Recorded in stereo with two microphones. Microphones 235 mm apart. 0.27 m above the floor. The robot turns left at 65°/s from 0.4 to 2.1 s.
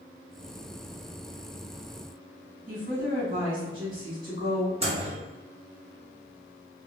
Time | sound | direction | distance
2.7 | a woman speaking | 25° right (ahead or behind) | 1.9 m
4.8 | a microwave | 25° right (ahead or behind) | 0.8 m